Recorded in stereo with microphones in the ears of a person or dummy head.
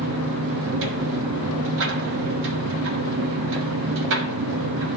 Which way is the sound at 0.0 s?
70° right (ahead or behind).